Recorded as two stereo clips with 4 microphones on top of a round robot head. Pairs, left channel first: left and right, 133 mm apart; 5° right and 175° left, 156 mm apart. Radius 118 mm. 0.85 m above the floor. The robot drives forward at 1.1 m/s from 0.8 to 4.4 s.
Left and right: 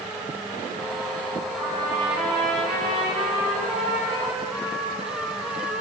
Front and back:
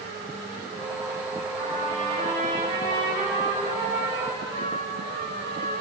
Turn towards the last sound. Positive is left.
turn(degrees=180)